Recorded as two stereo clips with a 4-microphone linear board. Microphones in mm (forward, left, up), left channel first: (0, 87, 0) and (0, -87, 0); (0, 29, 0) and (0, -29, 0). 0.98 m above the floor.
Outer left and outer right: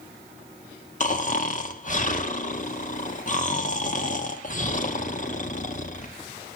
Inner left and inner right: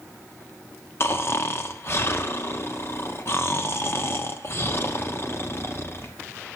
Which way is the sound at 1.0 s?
50° left (ahead or behind).